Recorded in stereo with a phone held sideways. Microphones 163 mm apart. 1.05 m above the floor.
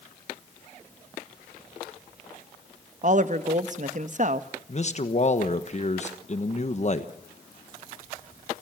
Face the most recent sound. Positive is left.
turn(degrees=45)  # may be behind; listen again after turning